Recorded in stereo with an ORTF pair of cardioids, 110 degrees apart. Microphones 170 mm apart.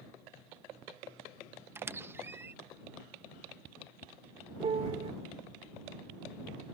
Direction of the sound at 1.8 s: 15° right.